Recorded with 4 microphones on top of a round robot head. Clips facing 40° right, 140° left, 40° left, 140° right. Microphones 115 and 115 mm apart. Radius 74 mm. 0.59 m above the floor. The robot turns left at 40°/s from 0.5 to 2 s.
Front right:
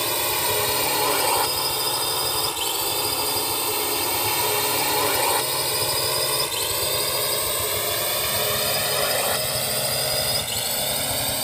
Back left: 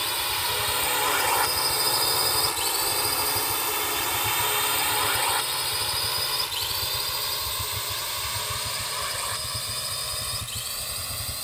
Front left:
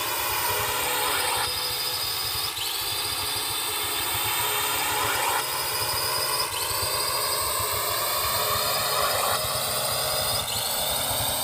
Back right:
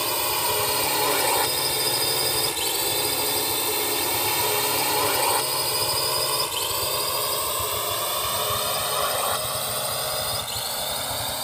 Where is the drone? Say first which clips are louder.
Front right 5 dB, back right 2 dB; 80° right; by 11.4 s 45° right.